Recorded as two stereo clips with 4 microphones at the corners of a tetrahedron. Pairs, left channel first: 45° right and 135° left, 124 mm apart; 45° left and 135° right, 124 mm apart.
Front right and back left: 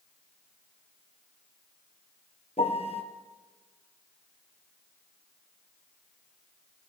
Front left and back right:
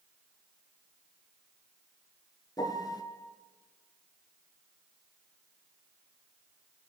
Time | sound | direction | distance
2.6 | a piano | 15° right | 1.7 m